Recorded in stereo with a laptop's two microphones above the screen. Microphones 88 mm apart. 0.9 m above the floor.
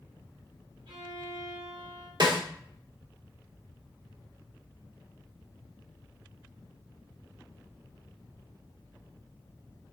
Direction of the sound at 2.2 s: 55° right (ahead or behind).